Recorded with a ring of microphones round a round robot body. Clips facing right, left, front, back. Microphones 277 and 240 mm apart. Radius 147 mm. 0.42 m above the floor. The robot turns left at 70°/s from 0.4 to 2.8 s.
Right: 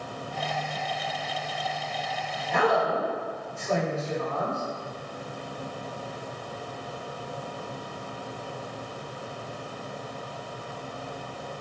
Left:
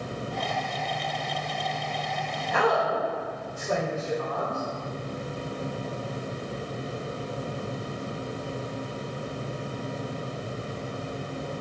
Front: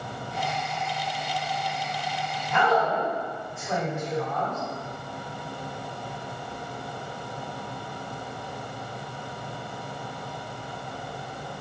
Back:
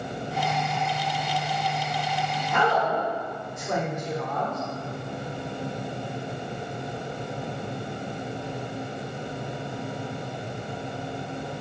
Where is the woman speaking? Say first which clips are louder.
Right 1 dB, front 1 dB; straight behind, 1.4 m; by 4.6 s 155° left, 1.4 m.